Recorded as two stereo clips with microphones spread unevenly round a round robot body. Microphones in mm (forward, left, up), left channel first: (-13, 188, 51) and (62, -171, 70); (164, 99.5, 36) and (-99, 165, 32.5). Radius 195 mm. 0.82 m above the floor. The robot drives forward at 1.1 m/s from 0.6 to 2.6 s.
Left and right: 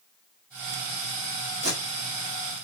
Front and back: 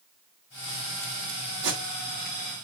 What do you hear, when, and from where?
1.6 s tape being pulled: 150° right, 2 m; by 2.4 s 160° right, 3 m